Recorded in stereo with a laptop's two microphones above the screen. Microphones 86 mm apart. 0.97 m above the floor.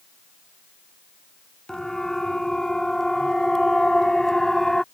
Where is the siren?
5° left (ahead or behind).